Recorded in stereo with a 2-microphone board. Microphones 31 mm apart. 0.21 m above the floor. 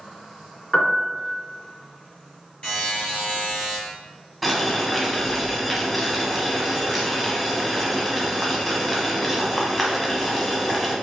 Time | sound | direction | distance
0.7 | a piano | 15° left (ahead or behind) | 0.6 m
2.6 | a buzzer | 35° left (ahead or behind) | 1.4 m
4.4 | boiling | centre (ahead or behind) | 0.6 m